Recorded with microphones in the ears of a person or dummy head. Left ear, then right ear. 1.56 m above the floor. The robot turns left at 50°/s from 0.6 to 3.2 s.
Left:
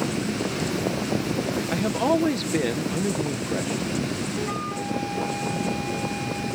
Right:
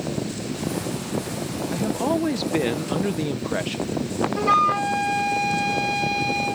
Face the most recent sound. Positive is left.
turn(degrees=-55)  # may be behind; listen again after turning